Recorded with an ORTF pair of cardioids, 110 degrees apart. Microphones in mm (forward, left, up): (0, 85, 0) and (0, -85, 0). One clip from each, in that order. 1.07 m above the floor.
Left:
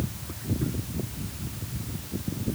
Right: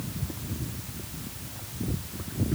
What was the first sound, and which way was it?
Only background noise.